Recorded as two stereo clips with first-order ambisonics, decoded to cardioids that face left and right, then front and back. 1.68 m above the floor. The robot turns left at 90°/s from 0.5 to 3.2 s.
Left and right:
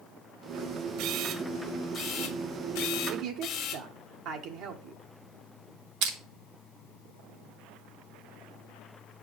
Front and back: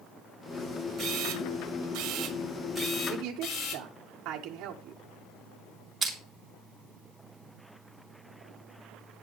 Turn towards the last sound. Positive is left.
turn(degrees=-105)